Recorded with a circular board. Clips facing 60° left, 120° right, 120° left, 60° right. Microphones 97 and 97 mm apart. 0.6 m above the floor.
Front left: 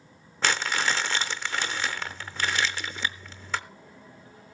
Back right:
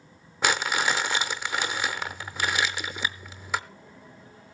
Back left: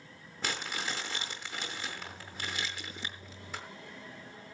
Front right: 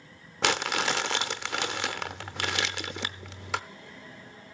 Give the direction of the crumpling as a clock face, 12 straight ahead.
1 o'clock.